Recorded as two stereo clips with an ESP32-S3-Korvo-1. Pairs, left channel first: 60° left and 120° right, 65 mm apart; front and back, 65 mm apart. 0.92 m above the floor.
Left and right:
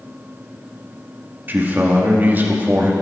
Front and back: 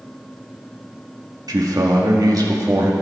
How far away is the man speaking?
About 1.7 m.